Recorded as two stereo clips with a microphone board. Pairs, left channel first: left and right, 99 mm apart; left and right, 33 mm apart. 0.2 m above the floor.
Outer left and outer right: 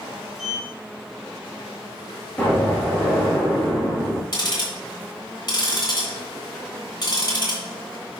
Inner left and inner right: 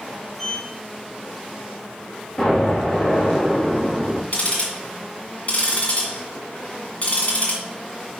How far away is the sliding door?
About 3 m.